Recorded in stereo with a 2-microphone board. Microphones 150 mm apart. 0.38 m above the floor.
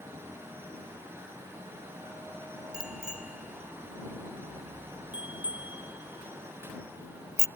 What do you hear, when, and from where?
2.7 s a bicycle bell: 5° right (ahead or behind); by 7.5 s 20° right (ahead or behind)